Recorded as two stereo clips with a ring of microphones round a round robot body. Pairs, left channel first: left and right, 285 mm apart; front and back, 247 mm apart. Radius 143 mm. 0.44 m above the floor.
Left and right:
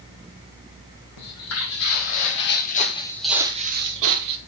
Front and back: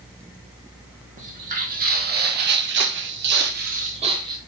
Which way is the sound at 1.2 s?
120° left.